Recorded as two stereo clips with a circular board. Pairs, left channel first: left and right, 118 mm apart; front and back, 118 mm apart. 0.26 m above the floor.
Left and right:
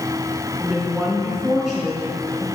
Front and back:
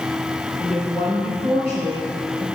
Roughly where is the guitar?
No guitar in this recording.